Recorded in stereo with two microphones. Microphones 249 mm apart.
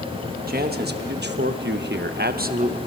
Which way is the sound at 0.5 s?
40° right (ahead or behind).